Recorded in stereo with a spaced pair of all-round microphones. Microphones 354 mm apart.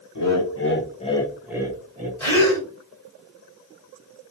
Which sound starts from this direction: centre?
A gasp, at 2.2 s.